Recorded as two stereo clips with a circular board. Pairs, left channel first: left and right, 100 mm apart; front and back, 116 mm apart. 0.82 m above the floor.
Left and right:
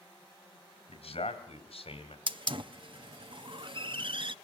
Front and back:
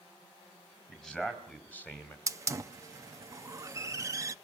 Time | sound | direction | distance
0.9 | a man speaking | 80° left | 4.5 m
2.3 | a hiss | 120° right | 0.5 m